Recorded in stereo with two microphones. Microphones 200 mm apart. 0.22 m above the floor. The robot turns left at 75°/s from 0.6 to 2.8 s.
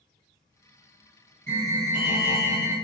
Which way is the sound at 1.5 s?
135° right.